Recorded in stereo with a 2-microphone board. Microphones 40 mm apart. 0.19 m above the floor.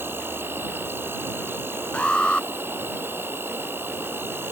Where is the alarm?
25° left (ahead or behind).